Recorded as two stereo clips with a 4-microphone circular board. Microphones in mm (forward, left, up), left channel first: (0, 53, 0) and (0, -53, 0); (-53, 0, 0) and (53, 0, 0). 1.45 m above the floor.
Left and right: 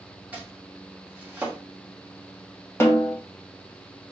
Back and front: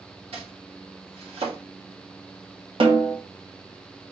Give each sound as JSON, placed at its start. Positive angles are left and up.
{"t": 0.3, "sound": "chopping", "azimuth_deg": -15, "distance_m": 1.7}
{"t": 2.8, "sound": "a snare drum", "azimuth_deg": 25, "distance_m": 1.1}